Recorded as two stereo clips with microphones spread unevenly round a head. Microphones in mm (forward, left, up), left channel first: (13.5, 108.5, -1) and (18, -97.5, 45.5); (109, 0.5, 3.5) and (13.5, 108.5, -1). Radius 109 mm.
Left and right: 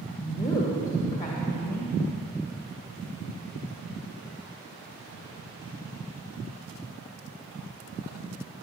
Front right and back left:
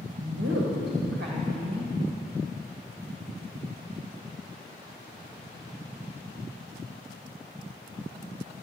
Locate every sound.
0.2 s a woman speaking: 170° left, 1.5 m